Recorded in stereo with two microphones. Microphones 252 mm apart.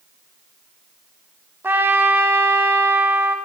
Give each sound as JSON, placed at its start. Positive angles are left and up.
{"t": 1.6, "sound": "a trumpet", "side_deg": -10, "distance_m": 0.7}